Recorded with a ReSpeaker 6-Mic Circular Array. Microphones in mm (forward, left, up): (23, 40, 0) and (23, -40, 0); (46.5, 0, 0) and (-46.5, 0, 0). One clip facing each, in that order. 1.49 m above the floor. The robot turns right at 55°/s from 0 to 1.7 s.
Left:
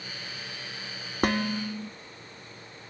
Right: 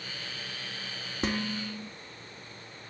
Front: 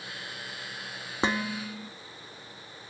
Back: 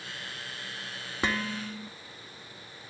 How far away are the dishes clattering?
About 1.6 m.